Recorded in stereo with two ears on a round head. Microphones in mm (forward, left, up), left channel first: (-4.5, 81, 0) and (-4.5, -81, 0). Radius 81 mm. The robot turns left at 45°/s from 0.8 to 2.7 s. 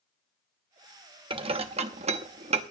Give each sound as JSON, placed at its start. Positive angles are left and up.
{"t": 1.3, "sound": "dishes clattering", "side_deg": -30, "distance_m": 0.9}